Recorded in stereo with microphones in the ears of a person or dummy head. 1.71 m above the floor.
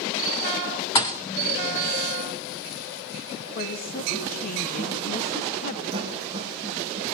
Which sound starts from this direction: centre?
A thud, at 0.9 s.